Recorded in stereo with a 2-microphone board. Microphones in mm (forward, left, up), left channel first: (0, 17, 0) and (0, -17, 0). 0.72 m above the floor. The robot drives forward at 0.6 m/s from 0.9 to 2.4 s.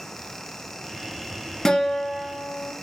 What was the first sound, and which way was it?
A guitar, 25° left (ahead or behind).